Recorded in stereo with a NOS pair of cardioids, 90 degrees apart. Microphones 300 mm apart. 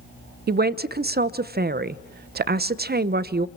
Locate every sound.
0.5 s a man speaking: 35° right, 1.0 m